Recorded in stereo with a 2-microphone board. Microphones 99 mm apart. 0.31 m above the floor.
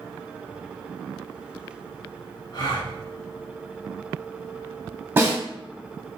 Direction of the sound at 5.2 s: 20° right (ahead or behind).